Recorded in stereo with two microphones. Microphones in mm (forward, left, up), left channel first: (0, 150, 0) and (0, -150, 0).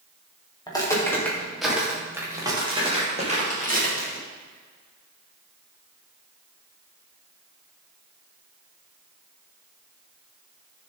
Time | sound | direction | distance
0.7 | footsteps | 15° left (ahead or behind) | 4.5 m